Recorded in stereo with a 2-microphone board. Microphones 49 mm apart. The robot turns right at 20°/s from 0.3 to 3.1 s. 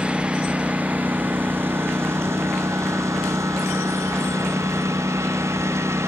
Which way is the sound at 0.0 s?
20° right (ahead or behind).